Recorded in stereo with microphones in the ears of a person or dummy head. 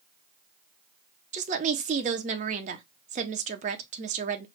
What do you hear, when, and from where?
1.3 s a woman speaking: 40° right (ahead or behind), 0.5 m